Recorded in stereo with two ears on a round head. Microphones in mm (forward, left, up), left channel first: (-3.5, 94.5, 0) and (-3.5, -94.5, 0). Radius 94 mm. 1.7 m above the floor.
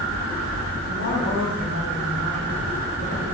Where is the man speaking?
90° left, 7.5 m.